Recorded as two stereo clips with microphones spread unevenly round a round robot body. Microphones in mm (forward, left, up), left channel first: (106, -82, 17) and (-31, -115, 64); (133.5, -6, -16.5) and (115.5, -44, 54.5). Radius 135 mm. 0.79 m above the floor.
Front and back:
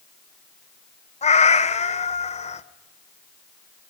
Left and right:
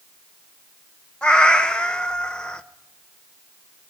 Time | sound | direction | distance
1.2 | a cat meowing | 35° right | 1.0 m